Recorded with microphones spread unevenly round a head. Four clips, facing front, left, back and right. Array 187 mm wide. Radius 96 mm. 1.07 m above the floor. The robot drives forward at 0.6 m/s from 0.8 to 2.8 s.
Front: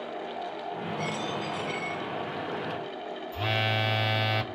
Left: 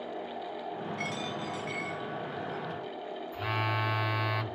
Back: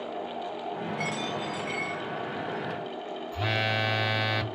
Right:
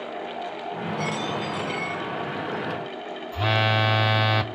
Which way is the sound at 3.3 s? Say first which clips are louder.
Right 10 dB, even; 95° right.